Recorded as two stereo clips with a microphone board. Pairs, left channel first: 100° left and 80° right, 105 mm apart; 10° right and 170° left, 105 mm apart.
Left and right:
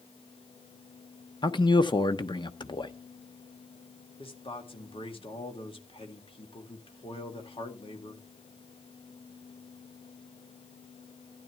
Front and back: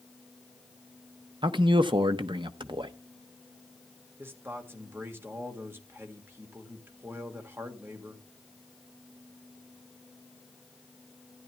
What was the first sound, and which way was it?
A man speaking, 135° left.